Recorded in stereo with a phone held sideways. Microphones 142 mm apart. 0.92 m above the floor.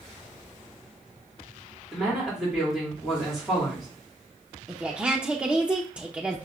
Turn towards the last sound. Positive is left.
turn(degrees=-10)  # may be behind; listen again after turning